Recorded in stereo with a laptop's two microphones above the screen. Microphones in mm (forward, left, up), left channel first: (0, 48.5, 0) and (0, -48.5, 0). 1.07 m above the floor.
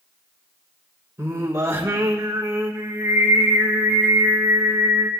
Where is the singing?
30° right (ahead or behind), 1.7 m.